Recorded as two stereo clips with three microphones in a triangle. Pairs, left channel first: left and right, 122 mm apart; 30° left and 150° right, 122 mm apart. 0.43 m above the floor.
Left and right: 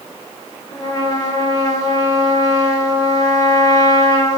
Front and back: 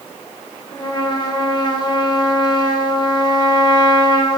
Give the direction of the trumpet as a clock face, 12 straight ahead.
10 o'clock.